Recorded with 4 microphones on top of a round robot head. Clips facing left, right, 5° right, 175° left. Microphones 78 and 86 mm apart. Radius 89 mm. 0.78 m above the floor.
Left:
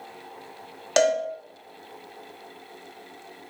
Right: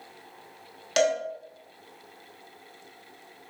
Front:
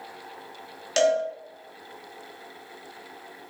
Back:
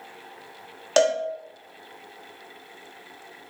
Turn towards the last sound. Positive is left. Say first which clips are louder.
# left 3 dB, back 1 dB
turn(degrees=140)